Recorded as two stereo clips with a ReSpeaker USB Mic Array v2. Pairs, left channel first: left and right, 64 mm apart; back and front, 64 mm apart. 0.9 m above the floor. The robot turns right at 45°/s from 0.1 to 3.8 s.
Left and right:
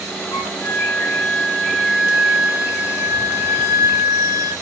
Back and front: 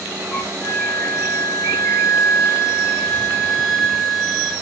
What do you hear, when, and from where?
0.3 s a flute: 110° left, 3.5 m; by 4.5 s 90° right, 3.5 m